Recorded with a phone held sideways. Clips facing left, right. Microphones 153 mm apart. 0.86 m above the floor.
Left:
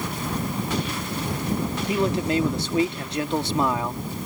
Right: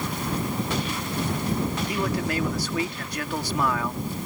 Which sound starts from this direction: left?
A man speaking, at 1.9 s.